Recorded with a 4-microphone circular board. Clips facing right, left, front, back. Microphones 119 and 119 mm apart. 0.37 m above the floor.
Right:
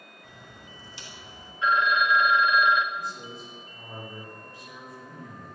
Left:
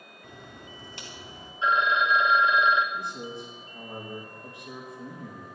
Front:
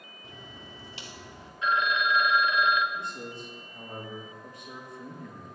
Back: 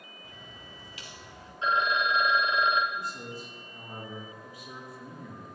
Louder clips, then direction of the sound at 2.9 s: Left 2 dB, even; 95° left.